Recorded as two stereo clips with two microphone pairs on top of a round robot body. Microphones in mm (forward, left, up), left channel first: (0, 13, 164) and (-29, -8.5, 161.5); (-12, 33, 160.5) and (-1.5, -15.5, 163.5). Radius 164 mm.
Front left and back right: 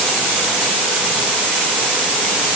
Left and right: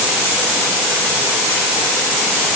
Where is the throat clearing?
I don't hear throat clearing.